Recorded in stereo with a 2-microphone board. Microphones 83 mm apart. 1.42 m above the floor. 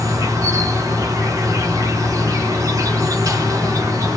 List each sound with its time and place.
0.0 s an insect: 45° right (ahead or behind), 0.8 m